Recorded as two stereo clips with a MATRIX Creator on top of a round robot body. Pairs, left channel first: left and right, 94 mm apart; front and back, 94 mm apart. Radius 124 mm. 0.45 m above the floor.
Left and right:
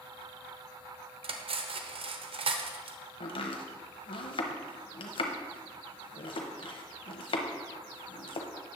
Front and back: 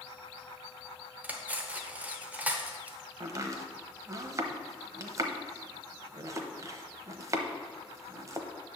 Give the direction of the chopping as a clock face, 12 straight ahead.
8 o'clock.